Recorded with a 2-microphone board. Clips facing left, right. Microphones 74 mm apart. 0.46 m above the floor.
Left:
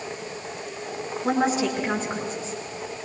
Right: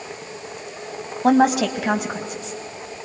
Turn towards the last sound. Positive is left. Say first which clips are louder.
# right 7 dB
turn(degrees=-75)  # may be behind; listen again after turning